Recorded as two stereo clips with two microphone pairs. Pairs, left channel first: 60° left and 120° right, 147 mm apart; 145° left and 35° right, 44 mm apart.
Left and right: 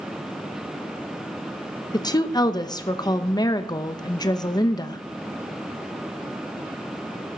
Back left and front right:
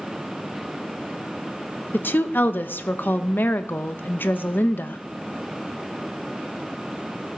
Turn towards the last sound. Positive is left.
turn(degrees=120)